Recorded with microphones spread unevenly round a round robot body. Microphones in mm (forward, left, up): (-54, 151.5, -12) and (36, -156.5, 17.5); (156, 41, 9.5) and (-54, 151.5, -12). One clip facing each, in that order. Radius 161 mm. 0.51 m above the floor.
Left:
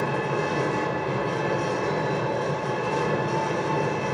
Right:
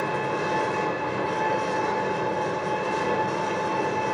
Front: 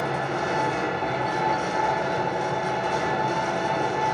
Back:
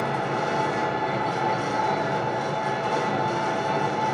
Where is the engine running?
45° left, 1.6 m.